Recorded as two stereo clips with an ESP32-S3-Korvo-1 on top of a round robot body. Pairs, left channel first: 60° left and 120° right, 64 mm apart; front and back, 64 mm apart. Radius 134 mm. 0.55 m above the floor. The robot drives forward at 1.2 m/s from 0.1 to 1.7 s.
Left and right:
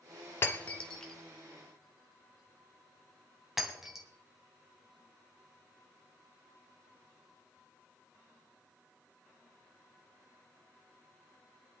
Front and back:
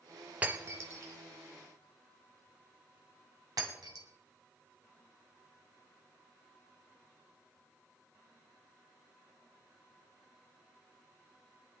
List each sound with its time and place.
0.4 s breaking glass: 110° left, 1.0 m; by 4.0 s 155° left, 2 m